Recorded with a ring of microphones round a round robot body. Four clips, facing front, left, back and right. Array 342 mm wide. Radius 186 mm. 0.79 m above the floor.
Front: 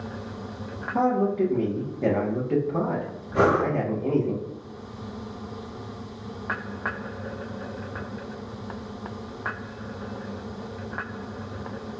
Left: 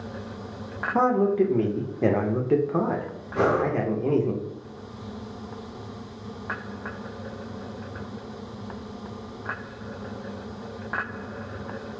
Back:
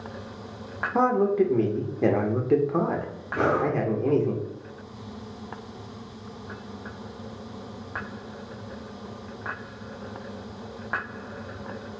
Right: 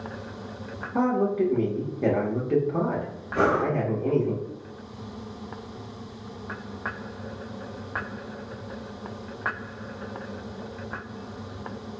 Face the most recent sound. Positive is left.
turn(degrees=5)